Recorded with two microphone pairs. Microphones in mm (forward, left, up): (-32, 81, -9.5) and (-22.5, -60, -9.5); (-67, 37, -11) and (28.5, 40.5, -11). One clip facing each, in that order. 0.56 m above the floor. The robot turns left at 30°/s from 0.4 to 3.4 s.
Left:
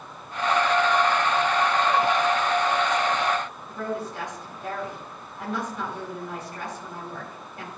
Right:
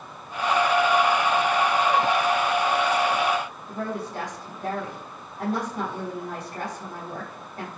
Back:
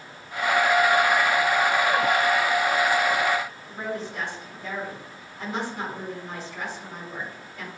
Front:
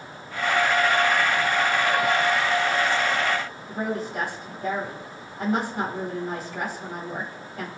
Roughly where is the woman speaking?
Ahead right.